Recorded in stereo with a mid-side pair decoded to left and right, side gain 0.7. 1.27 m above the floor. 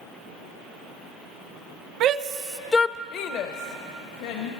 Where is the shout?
50° right, 0.8 m; by 4.5 s 80° left, 2.0 m.